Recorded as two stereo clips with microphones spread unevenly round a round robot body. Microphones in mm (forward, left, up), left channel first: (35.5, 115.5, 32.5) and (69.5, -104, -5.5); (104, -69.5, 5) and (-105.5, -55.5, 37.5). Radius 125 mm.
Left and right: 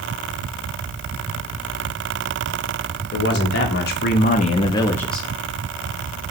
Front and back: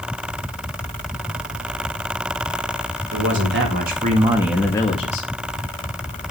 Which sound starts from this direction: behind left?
A man speaking, at 3.1 s.